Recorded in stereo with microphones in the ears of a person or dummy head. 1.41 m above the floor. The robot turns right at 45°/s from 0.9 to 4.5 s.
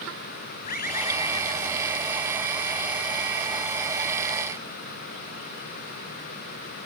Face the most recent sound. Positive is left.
turn(degrees=-65)